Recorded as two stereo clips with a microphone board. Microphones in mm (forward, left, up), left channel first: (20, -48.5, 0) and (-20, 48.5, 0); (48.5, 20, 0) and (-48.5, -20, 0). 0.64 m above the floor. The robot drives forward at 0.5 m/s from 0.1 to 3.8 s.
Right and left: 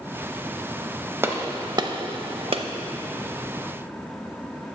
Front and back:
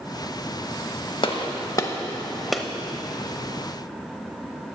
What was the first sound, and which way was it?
A gunshot, 50° left.